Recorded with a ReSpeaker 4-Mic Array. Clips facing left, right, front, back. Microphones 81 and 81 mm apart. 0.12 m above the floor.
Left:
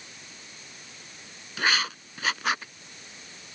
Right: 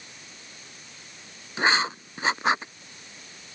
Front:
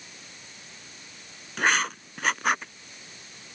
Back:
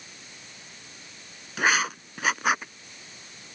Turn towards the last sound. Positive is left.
turn(degrees=-100)